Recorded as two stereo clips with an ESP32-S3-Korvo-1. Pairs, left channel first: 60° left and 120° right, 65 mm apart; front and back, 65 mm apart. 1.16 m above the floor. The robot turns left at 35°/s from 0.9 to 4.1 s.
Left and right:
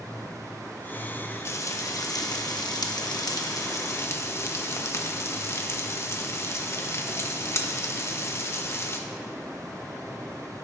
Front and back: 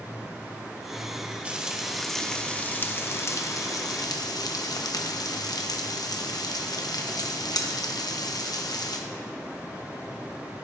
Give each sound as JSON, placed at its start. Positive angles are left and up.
{"t": 1.4, "sound": "frying", "azimuth_deg": 110, "distance_m": 0.9}